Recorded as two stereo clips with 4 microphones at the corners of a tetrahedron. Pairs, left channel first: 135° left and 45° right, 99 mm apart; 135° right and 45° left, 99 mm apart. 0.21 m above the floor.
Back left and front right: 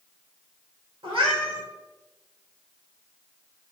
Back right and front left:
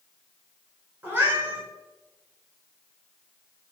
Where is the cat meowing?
20° right, 1.2 m.